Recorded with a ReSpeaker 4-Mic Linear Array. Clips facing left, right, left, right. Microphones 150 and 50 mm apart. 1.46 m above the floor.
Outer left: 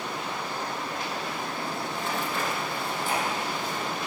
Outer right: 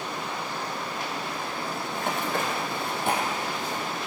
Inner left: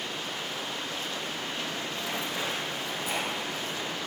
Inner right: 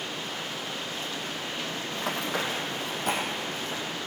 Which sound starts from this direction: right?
Running footsteps, at 1.9 s.